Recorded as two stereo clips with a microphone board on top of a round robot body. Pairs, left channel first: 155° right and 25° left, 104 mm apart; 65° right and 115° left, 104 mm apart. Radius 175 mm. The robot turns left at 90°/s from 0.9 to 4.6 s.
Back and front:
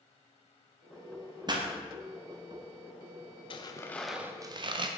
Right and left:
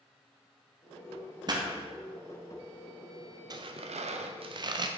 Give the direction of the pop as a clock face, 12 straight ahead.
10 o'clock.